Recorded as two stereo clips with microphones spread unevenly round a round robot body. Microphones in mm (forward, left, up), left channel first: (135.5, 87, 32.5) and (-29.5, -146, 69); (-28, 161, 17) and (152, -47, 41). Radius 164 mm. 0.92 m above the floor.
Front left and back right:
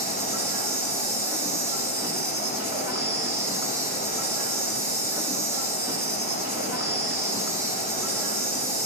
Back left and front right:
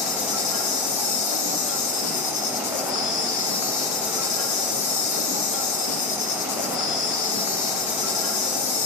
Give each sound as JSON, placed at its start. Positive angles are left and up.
{"t": 0.0, "sound": "an insect", "azimuth_deg": 150, "distance_m": 2.5}